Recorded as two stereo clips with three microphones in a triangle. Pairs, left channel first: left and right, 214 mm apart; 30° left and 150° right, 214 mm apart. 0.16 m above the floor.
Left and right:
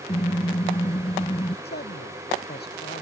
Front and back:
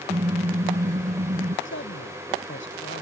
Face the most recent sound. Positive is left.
turn(degrees=50)